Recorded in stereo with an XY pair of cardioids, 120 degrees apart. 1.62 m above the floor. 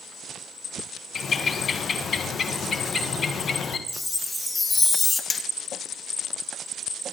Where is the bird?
35° left, 1.3 m.